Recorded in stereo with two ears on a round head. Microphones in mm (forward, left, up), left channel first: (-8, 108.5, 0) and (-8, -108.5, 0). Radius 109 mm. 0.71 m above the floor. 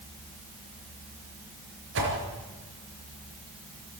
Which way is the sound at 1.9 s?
50° right (ahead or behind).